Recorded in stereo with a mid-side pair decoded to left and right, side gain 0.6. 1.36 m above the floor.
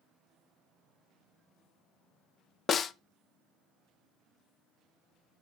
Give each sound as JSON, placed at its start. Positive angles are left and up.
{"t": 2.7, "sound": "a snare drum", "azimuth_deg": 40, "distance_m": 0.6}